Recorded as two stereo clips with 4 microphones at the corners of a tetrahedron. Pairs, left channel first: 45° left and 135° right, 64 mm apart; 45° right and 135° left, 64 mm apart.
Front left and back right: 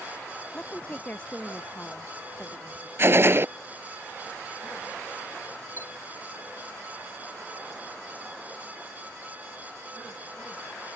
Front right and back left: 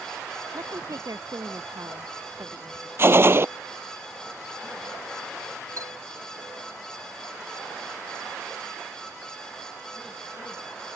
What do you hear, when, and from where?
0.5 s a woman speaking: 110° left
3.0 s a gunshot: straight behind
5.8 s a chime: 170° left